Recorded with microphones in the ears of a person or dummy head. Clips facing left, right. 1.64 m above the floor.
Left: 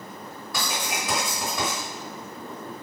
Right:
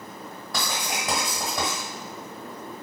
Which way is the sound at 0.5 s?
30° right (ahead or behind).